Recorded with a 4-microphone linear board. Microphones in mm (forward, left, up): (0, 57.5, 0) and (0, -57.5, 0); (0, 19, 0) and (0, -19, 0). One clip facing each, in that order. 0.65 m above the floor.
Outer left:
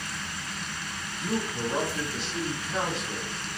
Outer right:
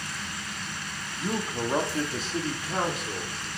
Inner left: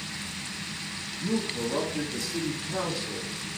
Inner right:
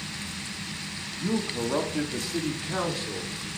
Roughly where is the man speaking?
Right.